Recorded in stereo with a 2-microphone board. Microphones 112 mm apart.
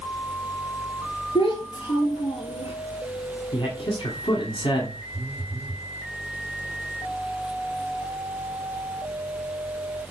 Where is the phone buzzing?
20° right (ahead or behind), 3.5 m.